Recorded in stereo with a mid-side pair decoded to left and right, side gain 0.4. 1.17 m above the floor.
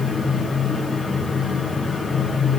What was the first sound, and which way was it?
A fan, 40° left.